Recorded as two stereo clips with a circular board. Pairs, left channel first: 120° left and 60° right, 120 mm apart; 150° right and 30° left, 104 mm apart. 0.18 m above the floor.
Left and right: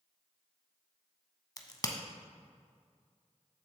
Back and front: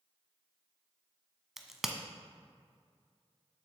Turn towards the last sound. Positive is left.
turn(degrees=115)